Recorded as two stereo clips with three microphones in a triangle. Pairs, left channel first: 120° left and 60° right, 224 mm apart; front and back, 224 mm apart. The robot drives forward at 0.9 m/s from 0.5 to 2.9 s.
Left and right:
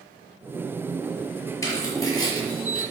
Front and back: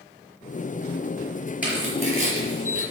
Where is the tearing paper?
95° left, 5.5 m; by 2.8 s 105° left, 5.5 m.